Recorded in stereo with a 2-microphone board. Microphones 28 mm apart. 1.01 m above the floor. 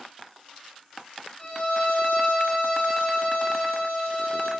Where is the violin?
35° left (ahead or behind), 1.1 m.